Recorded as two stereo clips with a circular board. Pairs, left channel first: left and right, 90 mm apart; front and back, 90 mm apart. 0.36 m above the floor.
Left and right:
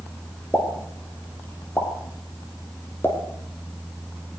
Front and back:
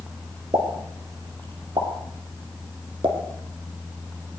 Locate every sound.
0.5 s a pop: 160° left, 6.5 m